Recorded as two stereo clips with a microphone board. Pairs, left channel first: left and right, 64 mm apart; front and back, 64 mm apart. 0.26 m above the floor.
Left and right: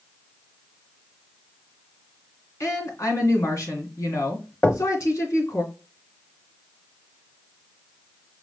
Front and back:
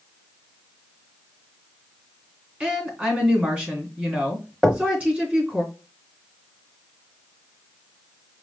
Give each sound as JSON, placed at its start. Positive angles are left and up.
{"t": 2.6, "sound": "a woman speaking", "azimuth_deg": 115, "distance_m": 2.5}
{"t": 4.6, "sound": "knocking", "azimuth_deg": 90, "distance_m": 0.8}